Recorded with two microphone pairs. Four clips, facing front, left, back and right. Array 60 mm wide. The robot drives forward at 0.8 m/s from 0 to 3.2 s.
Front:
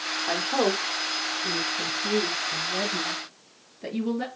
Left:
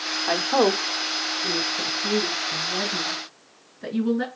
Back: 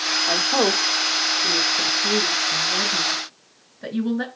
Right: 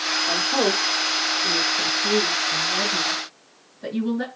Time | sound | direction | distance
0.3 | a woman speaking | 105° left | 0.8 m